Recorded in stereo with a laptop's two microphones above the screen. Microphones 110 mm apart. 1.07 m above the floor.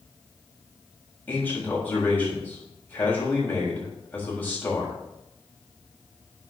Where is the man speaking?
20° left (ahead or behind), 7 m.